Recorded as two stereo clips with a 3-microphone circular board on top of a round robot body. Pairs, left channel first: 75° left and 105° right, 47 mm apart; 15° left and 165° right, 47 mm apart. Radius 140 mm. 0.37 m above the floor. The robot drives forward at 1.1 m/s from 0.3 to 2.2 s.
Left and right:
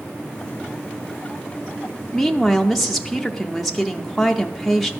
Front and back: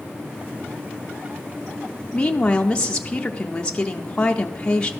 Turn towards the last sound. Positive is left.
turn(degrees=-10)